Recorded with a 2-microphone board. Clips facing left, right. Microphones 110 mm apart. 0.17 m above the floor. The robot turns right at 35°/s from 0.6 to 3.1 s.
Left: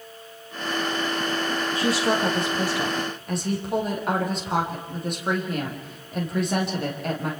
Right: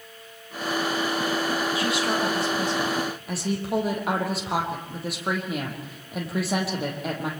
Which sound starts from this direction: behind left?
A woman speaking, at 1.8 s.